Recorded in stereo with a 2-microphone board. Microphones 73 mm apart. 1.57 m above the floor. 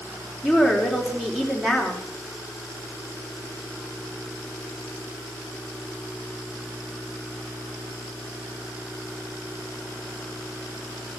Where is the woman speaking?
5° right (ahead or behind), 4 m.